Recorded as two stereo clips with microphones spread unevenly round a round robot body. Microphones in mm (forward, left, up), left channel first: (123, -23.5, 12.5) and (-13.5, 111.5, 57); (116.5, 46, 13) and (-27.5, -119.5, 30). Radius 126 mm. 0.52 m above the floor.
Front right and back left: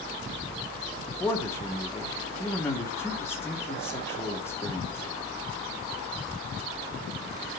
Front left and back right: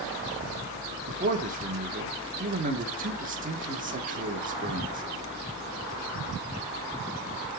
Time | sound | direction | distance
1.1 | a man speaking | 95° right | 1.6 m